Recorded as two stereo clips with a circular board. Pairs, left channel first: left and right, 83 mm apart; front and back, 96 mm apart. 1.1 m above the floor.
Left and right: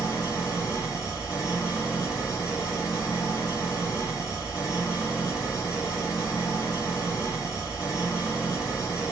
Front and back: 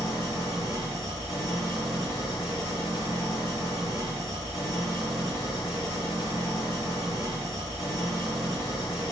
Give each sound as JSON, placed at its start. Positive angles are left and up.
{"t": 0.0, "sound": "an engine running", "azimuth_deg": 45, "distance_m": 1.6}